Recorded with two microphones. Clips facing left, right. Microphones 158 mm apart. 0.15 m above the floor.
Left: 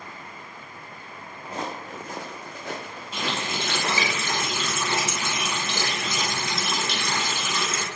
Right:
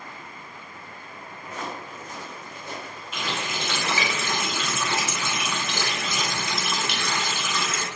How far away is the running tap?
About 0.9 m.